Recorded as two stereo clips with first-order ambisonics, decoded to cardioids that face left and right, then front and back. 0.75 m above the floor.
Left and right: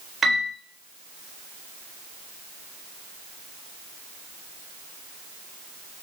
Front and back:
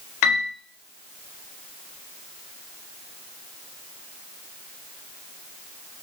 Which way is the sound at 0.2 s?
15° right.